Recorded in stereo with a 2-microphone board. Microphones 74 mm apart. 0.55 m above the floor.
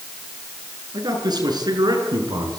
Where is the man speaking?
75° right (ahead or behind), 8 m; by 2.6 s 70° right (ahead or behind), 6.5 m.